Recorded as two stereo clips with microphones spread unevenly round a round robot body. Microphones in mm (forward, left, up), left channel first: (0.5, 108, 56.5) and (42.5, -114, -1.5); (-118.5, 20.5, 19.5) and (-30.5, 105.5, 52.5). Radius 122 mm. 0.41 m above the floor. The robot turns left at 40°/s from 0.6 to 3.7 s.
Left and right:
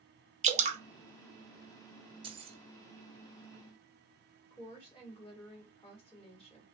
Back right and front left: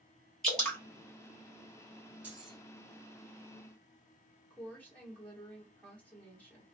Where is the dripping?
70° right, 0.6 m; by 0.8 s 80° right, 0.6 m.